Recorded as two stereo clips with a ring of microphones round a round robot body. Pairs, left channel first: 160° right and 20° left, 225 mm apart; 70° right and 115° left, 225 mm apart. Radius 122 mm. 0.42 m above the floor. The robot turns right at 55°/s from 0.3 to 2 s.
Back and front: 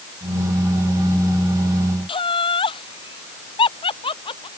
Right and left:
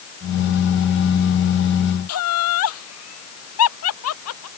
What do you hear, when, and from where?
2.1 s laughter: 90° right